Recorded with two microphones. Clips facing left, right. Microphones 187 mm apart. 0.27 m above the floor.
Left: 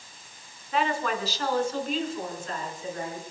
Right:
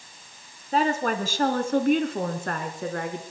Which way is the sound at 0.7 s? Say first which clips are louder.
Right 4 dB; 40° right (ahead or behind).